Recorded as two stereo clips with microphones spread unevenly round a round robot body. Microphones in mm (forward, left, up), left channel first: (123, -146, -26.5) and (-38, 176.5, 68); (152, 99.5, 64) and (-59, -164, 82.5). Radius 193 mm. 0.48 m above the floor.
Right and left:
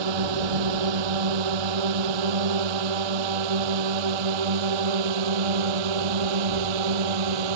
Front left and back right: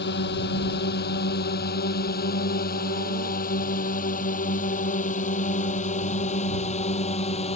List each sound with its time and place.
0.0 s a drone: 115° left; by 7.6 s 125° left